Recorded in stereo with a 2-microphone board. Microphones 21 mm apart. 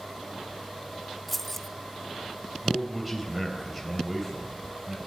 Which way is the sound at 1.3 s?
10° left (ahead or behind).